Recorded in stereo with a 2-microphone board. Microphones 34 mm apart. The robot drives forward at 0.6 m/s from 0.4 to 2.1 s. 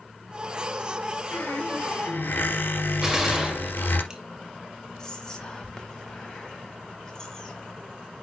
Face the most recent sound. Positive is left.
turn(degrees=20)  # may be behind; listen again after turning